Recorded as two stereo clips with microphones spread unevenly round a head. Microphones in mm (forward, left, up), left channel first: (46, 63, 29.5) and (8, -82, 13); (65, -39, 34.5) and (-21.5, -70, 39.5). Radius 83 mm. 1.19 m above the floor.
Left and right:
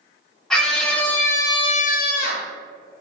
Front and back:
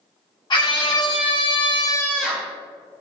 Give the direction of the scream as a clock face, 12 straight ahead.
12 o'clock.